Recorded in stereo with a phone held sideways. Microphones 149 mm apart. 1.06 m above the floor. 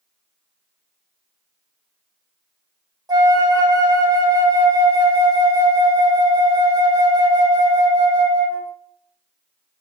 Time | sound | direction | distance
3.1 | a flute | 25° right (ahead or behind) | 0.9 m